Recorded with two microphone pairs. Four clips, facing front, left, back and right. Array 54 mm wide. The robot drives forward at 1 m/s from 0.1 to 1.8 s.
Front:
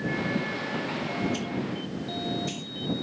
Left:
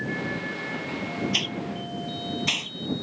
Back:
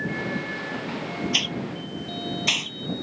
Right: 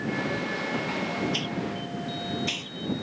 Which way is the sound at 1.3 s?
150° left.